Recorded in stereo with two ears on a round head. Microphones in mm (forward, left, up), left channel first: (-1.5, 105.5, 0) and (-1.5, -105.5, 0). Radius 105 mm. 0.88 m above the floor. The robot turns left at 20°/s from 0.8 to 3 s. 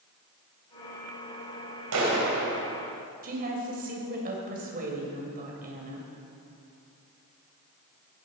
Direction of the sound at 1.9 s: 75° right (ahead or behind).